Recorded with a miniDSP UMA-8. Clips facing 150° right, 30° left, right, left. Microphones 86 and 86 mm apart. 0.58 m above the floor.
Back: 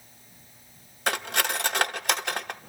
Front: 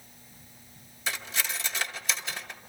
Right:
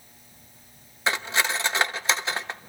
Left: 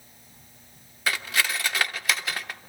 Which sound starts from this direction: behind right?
Cutlery clinking, at 1.1 s.